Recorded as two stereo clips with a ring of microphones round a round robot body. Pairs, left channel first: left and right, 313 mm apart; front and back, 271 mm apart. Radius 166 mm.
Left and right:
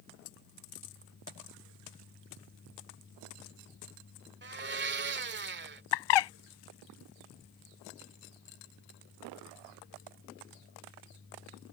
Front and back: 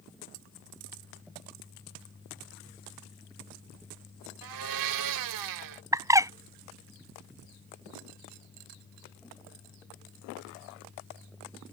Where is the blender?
150° right.